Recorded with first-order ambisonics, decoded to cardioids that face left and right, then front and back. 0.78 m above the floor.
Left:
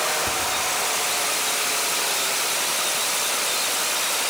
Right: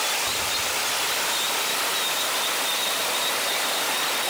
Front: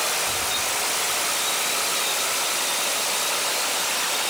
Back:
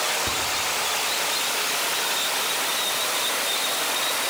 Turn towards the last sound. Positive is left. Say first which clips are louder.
# left 1 dB, even
turn(degrees=140)